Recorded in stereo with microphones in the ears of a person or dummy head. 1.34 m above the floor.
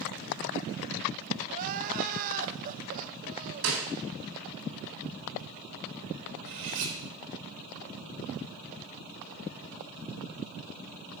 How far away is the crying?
About 0.5 m.